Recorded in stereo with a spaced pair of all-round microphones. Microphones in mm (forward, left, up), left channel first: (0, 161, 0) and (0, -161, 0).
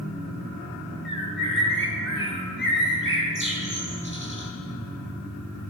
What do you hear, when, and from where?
1.1 s a bird: 40° left (ahead or behind), 3.5 m